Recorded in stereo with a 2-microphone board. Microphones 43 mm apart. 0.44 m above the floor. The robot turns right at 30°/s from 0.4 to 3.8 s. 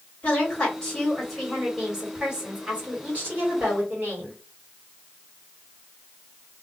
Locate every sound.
0.2 s a woman speaking: 145° left, 1.8 m; by 4.4 s 115° right, 1.8 m